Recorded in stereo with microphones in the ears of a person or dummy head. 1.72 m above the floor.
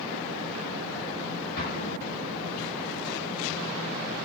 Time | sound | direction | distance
1.6 | an explosion | 65° left (ahead or behind) | 9.5 m